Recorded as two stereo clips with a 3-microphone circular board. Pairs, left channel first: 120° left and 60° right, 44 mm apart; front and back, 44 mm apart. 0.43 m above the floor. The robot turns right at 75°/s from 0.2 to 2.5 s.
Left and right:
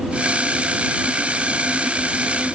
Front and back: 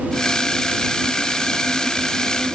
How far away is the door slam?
I don't hear a door slam.